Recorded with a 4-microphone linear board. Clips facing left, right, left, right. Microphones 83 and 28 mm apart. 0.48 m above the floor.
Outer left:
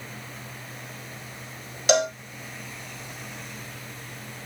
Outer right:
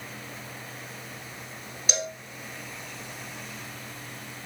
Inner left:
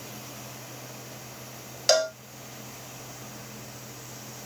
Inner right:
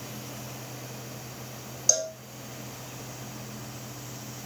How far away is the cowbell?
About 0.9 m.